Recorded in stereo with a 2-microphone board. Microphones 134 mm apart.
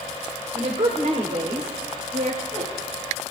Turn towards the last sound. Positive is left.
turn(degrees=-75)  # may be behind; listen again after turning